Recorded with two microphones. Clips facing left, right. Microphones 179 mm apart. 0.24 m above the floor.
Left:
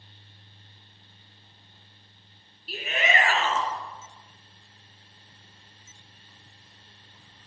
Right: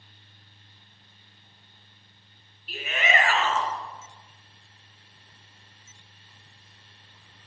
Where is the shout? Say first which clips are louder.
Even; 40° left (ahead or behind), 3.5 m.